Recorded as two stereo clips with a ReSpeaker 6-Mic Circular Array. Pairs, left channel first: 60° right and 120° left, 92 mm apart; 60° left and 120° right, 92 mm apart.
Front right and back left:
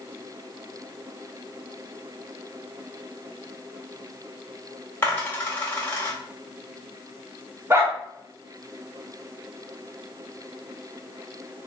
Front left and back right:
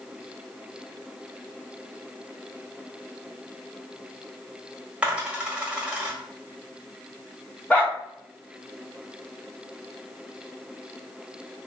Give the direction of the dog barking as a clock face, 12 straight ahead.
8 o'clock.